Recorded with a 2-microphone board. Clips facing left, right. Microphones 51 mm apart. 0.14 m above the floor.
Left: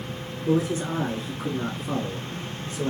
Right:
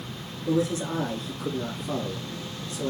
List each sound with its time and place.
0.5 s a man speaking: 30° left (ahead or behind), 2.5 m; by 2.9 s 35° left (ahead or behind), 1.8 m